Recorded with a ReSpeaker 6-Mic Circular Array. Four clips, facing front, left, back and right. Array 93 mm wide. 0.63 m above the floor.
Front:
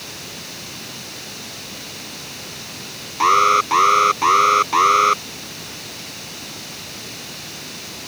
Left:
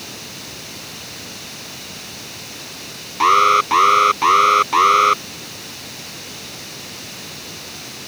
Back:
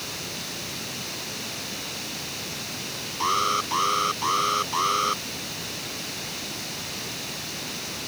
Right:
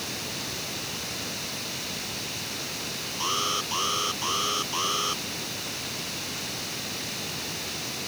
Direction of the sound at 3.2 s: 55° left.